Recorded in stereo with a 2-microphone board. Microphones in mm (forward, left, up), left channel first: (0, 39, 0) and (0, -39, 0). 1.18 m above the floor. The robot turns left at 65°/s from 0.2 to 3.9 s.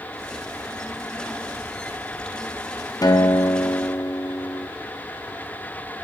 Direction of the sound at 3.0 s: 110° left.